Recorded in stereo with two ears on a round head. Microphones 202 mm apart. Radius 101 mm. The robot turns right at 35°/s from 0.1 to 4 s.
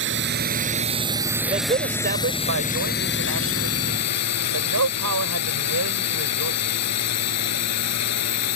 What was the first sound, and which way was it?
A drone, 55° right.